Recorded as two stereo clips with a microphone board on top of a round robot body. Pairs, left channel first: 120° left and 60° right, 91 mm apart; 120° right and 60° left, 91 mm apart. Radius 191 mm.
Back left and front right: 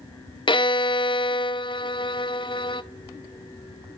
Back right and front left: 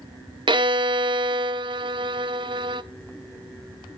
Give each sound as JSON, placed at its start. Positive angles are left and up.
{"t": 0.5, "sound": "a violin", "azimuth_deg": 90, "distance_m": 0.6}